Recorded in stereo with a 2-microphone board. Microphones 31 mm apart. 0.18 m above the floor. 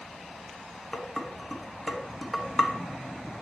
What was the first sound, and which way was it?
Dishes clattering, 5° left (ahead or behind).